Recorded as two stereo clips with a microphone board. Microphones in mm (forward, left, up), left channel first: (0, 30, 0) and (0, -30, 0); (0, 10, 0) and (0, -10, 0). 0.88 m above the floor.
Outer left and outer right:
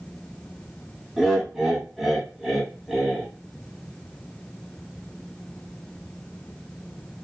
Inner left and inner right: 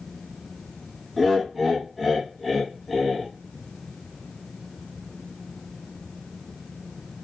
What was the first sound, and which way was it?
Laughter, centre (ahead or behind).